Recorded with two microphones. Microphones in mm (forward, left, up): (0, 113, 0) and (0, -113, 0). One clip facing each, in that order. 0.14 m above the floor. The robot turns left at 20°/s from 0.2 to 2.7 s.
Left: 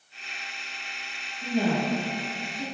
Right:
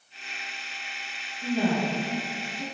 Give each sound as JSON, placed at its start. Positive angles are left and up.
{"t": 1.4, "sound": "a woman speaking", "side_deg": 25, "distance_m": 1.4}